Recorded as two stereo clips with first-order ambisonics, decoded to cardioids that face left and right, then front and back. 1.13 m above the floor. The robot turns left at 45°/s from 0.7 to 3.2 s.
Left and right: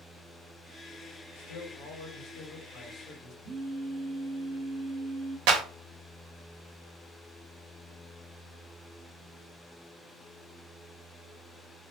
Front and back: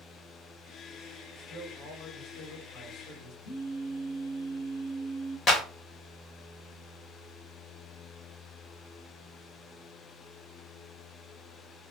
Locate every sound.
1.4 s a man speaking: 105° left, 1.7 m; by 3.3 s 25° left, 1.7 m
3.4 s a phone buzzing: 30° right, 1.5 m
5.5 s a clap: 65° right, 0.9 m